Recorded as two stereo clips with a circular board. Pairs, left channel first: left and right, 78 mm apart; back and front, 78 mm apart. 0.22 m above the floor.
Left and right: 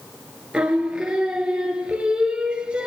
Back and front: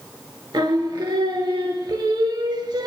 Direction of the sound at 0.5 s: 15° right.